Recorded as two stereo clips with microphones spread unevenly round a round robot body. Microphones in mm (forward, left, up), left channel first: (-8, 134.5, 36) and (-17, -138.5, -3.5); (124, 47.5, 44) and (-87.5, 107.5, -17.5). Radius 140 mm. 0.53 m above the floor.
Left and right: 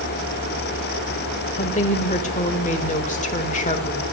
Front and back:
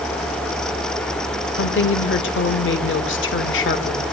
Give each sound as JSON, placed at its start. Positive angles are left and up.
{"t": 1.6, "sound": "a woman speaking", "azimuth_deg": 20, "distance_m": 1.5}